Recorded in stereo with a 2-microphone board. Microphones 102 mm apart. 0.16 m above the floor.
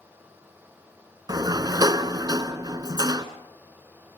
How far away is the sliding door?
About 1.0 m.